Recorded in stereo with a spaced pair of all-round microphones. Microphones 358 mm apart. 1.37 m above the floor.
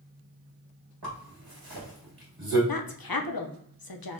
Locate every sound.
1.0 s a zipper: 80° right, 1.8 m
2.7 s a woman speaking: 75° left (ahead or behind), 0.6 m